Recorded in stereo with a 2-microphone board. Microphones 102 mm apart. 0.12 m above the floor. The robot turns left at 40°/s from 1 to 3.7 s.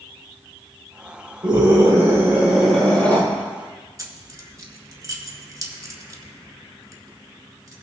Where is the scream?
130° right, 3.5 m; by 3.2 s 160° left, 3.5 m.